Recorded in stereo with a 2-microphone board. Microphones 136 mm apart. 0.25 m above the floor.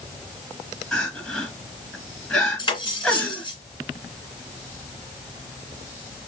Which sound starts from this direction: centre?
Crying, at 0.9 s.